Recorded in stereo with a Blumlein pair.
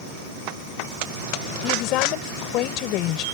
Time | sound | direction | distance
1.6 | a woman speaking | 40° left | ?